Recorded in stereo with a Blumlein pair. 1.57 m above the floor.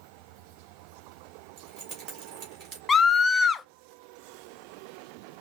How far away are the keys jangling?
About 2.5 m.